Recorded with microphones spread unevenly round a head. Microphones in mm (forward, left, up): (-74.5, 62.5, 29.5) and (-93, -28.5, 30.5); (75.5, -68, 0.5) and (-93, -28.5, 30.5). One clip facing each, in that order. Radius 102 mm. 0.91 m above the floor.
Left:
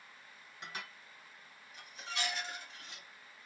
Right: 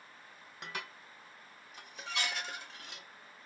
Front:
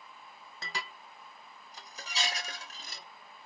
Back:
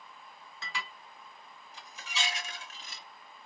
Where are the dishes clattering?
65° right, 0.5 m.